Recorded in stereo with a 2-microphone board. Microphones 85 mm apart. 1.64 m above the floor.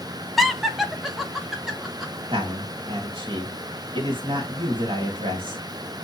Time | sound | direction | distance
0.4 | laughter | centre (ahead or behind) | 0.7 m
2.3 | a man speaking | 80° right | 1.9 m